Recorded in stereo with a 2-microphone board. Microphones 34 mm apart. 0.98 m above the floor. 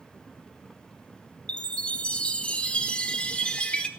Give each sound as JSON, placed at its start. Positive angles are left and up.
{"t": 1.5, "sound": "a chime", "side_deg": 35, "distance_m": 0.9}